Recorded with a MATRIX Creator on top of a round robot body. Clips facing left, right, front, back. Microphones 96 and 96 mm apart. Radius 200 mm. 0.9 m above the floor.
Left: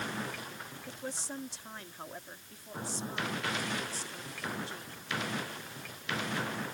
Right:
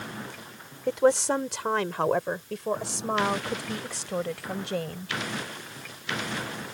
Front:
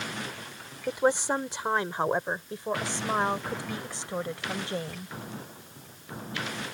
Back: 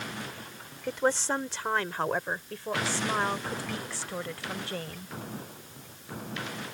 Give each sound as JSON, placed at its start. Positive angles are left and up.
{"t": 0.9, "sound": "a woman speaking", "azimuth_deg": -75}